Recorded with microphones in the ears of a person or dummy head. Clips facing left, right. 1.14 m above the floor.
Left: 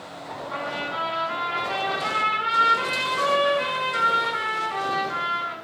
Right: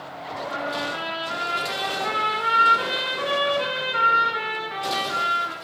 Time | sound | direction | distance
0.5 | a trumpet | 45° left (ahead or behind) | 1.2 m